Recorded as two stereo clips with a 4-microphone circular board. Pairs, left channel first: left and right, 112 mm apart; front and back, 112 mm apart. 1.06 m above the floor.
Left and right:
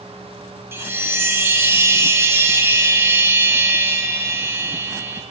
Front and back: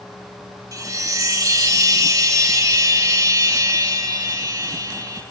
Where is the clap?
I don't hear a clap.